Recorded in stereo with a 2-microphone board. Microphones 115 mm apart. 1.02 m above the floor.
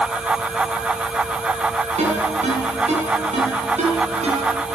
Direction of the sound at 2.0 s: 75° right (ahead or behind).